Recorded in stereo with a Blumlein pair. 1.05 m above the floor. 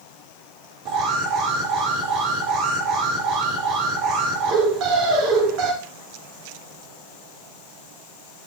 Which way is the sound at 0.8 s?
40° right.